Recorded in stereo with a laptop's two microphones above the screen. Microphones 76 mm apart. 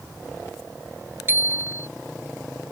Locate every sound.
1.3 s a bicycle bell: 30° right (ahead or behind)